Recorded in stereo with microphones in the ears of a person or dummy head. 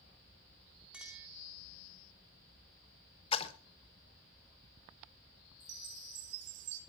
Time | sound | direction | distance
0.9 | a clink | 5° right (ahead or behind) | 2.5 m
3.3 | a splash | 35° left (ahead or behind) | 1.2 m
5.6 | a chime | 70° right (ahead or behind) | 1.9 m